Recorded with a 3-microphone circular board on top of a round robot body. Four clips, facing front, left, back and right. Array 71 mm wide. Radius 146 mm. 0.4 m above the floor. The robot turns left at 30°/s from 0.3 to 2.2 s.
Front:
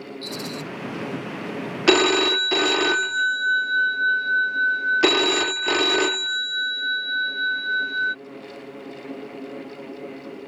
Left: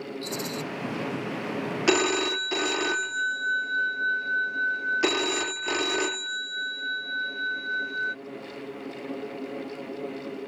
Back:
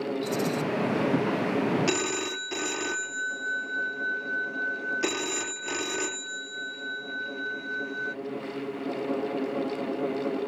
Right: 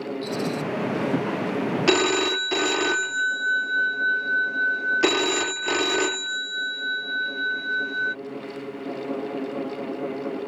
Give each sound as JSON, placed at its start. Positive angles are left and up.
{"t": 0.2, "sound": "a rattle", "azimuth_deg": 60}
{"t": 1.9, "sound": "a phone ringing", "azimuth_deg": -10}